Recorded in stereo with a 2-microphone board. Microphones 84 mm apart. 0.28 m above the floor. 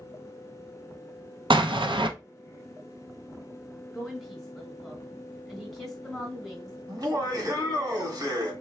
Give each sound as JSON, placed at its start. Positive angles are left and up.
{"t": 1.5, "sound": "an explosion", "side_deg": -75, "distance_m": 0.5}
{"t": 3.9, "sound": "a woman speaking", "side_deg": 0, "distance_m": 1.5}
{"t": 6.9, "sound": "laughter", "side_deg": -45, "distance_m": 1.7}